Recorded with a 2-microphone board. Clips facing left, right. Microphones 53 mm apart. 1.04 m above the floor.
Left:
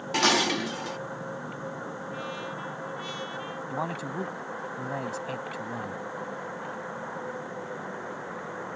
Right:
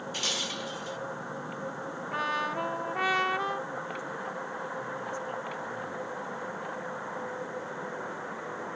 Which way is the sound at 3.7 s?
80° left.